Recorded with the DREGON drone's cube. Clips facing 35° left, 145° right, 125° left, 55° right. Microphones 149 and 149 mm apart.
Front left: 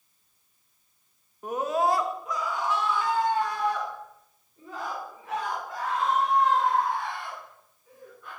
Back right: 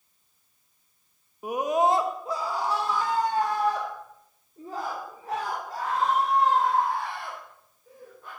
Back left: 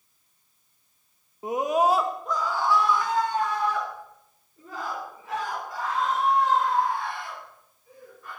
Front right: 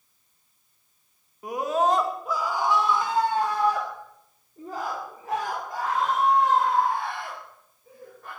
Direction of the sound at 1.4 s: 145° left.